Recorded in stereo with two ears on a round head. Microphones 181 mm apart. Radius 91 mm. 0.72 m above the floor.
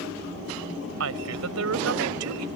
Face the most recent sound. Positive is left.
turn(degrees=-80)